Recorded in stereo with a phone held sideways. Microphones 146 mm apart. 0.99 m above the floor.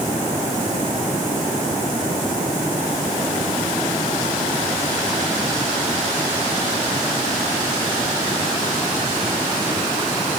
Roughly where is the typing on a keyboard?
No typing on a keyboard in this recording.